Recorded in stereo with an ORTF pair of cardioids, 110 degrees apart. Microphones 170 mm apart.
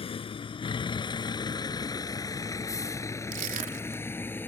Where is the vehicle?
35° left; by 4.5 s 10° left.